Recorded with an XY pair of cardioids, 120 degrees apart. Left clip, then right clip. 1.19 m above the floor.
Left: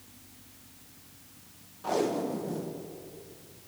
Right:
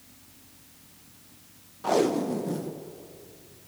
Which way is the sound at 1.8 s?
35° right.